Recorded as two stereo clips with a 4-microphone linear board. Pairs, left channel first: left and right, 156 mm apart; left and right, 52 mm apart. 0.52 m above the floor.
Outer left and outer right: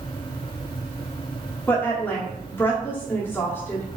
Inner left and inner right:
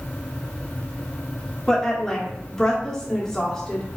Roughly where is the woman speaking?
Centre.